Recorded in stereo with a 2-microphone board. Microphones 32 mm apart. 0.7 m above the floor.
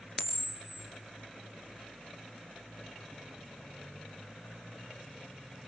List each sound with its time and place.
0.2 s a camera shutter: 10° right (ahead or behind), 2.0 m